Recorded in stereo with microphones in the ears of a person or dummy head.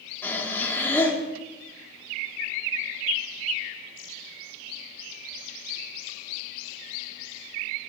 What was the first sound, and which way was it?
Breathing, 10° left (ahead or behind).